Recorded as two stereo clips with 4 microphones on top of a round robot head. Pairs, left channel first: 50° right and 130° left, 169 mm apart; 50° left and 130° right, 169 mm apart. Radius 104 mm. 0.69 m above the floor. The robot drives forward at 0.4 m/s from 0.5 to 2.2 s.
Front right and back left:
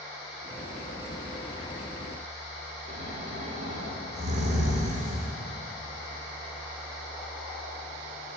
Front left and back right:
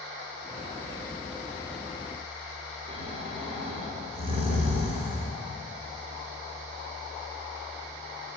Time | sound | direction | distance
2.9 | snoring | 175° left | 3 m